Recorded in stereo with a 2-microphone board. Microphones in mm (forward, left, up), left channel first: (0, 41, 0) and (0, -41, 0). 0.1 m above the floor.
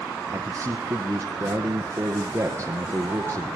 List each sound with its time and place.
0.3 s a man speaking: 30° right (ahead or behind), 1.7 m